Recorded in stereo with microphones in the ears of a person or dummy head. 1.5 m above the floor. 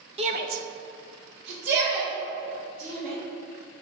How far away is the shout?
About 0.7 m.